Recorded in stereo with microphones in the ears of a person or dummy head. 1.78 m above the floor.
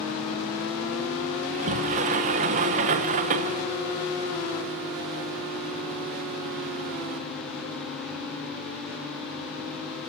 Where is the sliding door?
40° right (ahead or behind), 1.0 m.